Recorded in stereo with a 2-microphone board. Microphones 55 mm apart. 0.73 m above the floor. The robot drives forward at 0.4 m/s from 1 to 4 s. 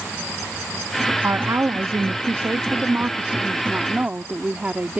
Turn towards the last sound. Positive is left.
turn(degrees=-25)  # may be behind; listen again after turning